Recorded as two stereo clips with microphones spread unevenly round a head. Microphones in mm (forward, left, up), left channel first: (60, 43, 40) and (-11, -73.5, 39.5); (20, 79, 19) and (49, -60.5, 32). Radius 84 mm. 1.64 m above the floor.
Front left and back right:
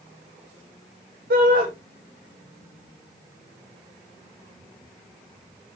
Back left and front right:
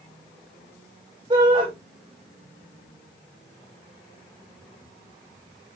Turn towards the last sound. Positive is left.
turn(degrees=-145)